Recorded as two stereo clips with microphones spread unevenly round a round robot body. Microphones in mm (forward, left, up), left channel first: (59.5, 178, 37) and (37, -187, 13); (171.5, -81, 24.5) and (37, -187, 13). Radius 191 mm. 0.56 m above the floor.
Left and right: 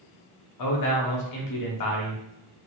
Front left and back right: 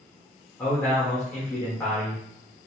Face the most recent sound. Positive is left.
turn(degrees=120)